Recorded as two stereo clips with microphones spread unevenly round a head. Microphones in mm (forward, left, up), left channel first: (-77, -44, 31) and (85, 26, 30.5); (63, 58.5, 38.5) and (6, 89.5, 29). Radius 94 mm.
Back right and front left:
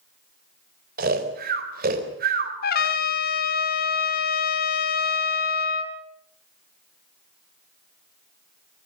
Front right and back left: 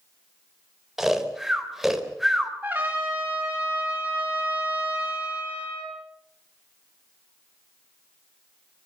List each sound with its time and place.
1.0 s snoring: 65° left, 3.5 m
2.6 s a trumpet: 125° right, 1.9 m